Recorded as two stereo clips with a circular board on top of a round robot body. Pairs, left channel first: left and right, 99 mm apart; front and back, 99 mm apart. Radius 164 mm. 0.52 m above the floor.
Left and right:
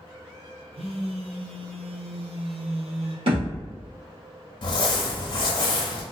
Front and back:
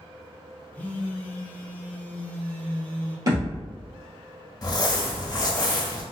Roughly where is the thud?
Behind right.